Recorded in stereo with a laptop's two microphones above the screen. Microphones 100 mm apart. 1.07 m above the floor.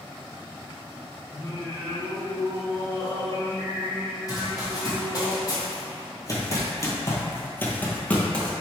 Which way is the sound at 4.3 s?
40° left (ahead or behind).